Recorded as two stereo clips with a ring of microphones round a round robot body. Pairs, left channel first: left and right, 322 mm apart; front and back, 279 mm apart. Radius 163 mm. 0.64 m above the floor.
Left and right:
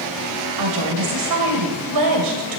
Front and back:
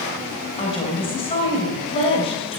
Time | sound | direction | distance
0.6 | a woman speaking | 70° right | 3 m